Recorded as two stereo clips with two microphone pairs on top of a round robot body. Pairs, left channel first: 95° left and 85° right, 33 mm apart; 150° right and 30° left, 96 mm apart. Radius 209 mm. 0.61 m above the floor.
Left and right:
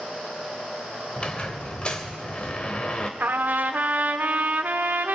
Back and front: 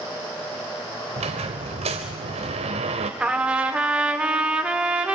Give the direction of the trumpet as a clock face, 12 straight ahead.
2 o'clock.